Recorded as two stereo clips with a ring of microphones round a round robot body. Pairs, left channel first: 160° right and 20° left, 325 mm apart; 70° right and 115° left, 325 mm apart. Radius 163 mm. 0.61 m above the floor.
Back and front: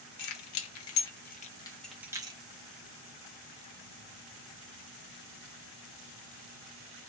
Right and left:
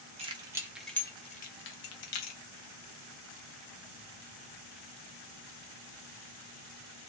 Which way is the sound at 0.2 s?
175° right.